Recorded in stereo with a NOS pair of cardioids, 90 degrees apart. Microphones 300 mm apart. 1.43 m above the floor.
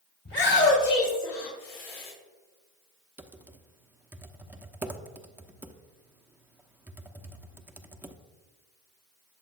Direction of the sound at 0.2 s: 40° left.